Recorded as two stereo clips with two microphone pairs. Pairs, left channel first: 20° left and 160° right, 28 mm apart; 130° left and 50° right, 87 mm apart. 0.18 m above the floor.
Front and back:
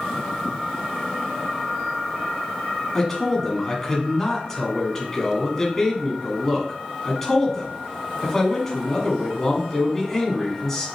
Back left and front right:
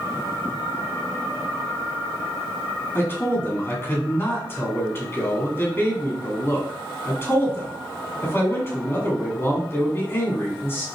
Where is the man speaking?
90° left, 1.4 m.